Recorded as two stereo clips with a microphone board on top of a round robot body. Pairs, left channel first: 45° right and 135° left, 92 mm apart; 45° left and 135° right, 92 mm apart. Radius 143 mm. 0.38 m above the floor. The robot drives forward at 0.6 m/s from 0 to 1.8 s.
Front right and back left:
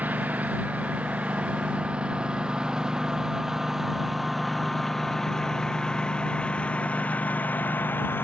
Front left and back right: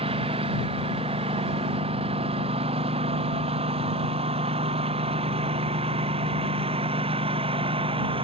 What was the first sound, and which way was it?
A lawn mower, 150° right.